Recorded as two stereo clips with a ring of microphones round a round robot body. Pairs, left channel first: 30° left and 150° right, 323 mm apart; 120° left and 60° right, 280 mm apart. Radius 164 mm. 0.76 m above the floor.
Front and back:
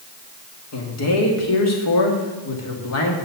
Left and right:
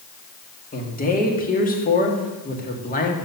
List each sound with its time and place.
0.7 s a man speaking: 65° left, 2 m